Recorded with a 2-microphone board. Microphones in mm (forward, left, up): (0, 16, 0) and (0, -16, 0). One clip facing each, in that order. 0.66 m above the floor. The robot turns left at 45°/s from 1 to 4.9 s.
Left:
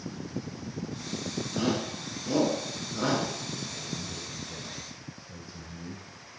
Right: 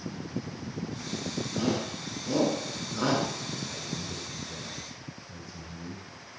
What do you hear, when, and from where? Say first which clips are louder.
1.5 s a shout: left 1 dB; 40° left (ahead or behind), 7.5 m; by 3.3 s 40° right (ahead or behind), 7.5 m
3.7 s a man speaking: right 1 dB; 130° right, 3.5 m; by 6.1 s straight behind, 3.5 m